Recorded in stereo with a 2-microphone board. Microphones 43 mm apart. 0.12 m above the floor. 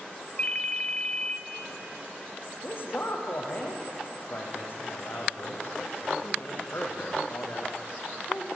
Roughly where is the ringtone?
Left.